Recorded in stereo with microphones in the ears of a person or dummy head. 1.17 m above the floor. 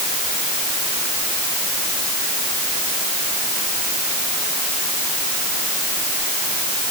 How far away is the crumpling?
I don't hear crumpling.